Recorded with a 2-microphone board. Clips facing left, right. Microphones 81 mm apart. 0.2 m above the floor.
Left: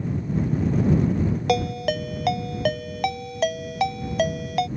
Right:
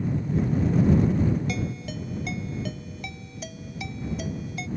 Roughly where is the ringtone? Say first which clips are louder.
Left 9 dB; left.